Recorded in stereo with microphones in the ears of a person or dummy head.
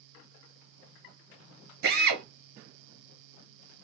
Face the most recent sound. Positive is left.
turn(degrees=-55)  # may be behind; listen again after turning